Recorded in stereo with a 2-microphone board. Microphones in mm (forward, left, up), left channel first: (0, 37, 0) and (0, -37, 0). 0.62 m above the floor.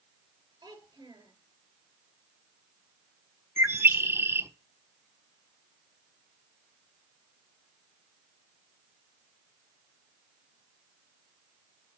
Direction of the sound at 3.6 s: 35° right (ahead or behind).